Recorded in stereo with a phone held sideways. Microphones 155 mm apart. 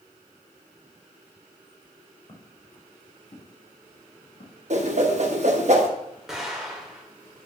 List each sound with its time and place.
2.3 s footsteps: 40° left (ahead or behind), 3.5 m; by 4.6 s 75° left (ahead or behind), 3.5 m
4.7 s a whoosh: 50° right (ahead or behind), 1.4 m
6.3 s an explosion: 5° right (ahead or behind), 2.5 m